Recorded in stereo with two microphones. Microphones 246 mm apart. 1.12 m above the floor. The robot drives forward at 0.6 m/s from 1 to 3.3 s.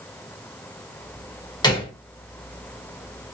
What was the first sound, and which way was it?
A gunshot, 20° left (ahead or behind).